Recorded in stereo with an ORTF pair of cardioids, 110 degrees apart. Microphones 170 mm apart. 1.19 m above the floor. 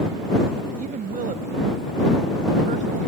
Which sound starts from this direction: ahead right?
A woman speaking, at 0.8 s.